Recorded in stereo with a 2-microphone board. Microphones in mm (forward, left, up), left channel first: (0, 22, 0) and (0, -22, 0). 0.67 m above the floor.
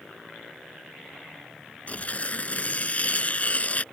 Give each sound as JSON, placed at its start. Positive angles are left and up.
{"t": 1.9, "sound": "tearing paper", "side_deg": 35}